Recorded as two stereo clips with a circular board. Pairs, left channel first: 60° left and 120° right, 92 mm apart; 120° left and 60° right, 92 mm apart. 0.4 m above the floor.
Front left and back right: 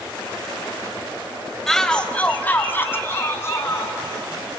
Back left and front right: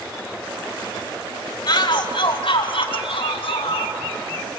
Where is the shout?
145° left, 1.6 m; by 4.0 s 120° left, 4 m.